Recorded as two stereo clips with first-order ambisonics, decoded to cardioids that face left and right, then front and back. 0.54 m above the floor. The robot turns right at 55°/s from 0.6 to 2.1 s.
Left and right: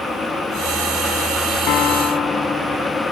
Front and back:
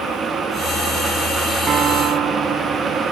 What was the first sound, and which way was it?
A piano, 115° left.